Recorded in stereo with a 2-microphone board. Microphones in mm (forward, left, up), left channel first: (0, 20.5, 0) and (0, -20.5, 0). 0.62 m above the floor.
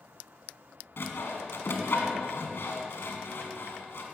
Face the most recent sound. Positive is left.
turn(degrees=70)  # may be behind; listen again after turning